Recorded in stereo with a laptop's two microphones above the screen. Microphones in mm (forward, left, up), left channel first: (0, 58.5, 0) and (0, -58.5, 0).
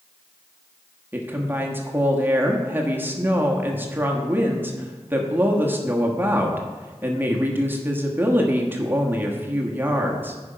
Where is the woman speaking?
15° right (ahead or behind), 1.2 m.